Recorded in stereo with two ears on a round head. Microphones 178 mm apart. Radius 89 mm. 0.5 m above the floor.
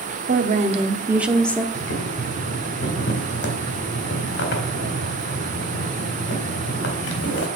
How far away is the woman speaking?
About 0.9 m.